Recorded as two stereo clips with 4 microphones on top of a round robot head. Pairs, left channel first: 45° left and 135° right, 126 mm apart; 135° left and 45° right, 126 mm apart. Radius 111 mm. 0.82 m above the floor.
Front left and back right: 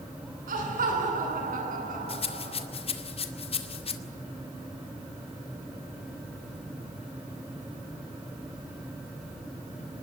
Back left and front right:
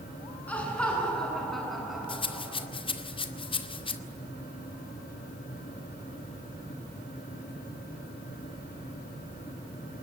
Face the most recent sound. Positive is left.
turn(degrees=85)